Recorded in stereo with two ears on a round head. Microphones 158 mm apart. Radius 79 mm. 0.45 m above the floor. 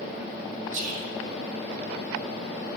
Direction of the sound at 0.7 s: 45° right (ahead or behind).